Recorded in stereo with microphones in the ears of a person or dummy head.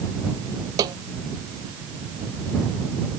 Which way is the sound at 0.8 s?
20° right (ahead or behind).